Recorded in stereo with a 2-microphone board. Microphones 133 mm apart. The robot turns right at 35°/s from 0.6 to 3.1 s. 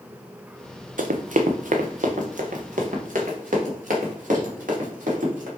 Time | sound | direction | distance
1.0 | running footsteps | 75° right (ahead or behind) | 0.6 m